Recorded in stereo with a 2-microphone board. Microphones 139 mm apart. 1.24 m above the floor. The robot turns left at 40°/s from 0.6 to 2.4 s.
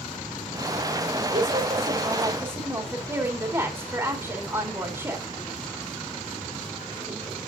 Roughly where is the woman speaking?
Behind right.